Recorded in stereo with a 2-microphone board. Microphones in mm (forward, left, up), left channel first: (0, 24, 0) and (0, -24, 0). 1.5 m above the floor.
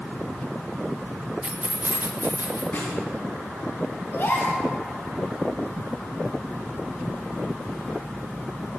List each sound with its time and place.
1.4 s keys jangling: 25° right (ahead or behind), 0.7 m; by 2.6 s 50° right (ahead or behind), 1.3 m
2.7 s a snare drum: 50° left (ahead or behind), 2 m
4.1 s a gasp: 60° left (ahead or behind), 1.9 m